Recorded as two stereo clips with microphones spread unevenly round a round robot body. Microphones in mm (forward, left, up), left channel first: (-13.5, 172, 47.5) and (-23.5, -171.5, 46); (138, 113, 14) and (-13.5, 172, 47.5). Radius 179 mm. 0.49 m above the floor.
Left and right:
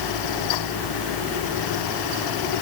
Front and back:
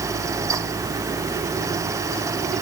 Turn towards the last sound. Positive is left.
No sound to turn to.